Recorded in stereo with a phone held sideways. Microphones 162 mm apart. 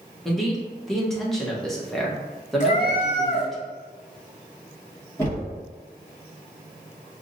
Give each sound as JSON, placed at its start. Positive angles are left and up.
{"t": 0.2, "sound": "a man speaking", "side_deg": 0, "distance_m": 0.9}
{"t": 2.6, "sound": "a cat meowing", "side_deg": 45, "distance_m": 1.3}
{"t": 5.2, "sound": "knocking", "side_deg": 15, "distance_m": 1.4}